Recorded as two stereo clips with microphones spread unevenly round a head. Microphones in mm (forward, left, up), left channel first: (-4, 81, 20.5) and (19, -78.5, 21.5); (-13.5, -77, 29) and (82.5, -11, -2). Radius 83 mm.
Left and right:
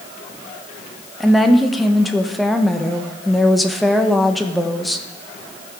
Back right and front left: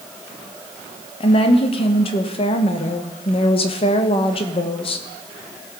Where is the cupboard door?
No cupboard door in this recording.